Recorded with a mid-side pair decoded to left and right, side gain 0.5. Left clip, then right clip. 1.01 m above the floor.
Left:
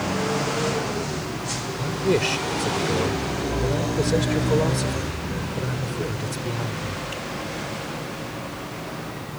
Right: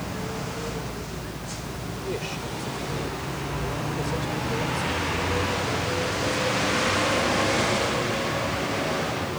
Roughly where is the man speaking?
Ahead left.